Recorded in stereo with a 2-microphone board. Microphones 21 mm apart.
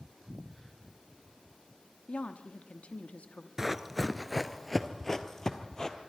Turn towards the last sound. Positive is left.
turn(degrees=25)  # may be behind; listen again after turning